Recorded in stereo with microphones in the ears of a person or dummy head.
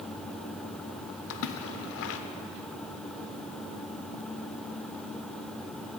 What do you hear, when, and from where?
1.3 s a splash: 70° left (ahead or behind), 0.5 m